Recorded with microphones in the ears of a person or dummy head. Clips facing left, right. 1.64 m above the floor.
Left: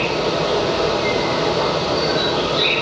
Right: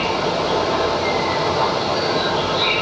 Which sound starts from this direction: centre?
An insect, at 0.0 s.